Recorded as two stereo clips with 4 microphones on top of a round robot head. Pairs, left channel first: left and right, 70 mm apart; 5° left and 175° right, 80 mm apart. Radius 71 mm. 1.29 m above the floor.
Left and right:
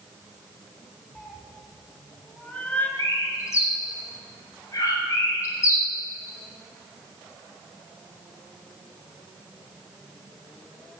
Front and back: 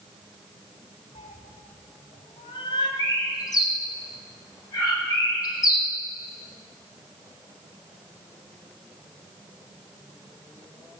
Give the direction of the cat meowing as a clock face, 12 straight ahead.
12 o'clock.